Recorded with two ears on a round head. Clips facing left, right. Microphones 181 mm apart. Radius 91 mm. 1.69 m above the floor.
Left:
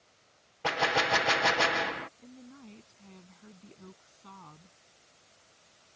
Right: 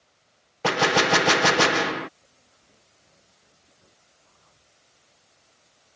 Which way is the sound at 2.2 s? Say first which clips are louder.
Left 15 dB; 80° left.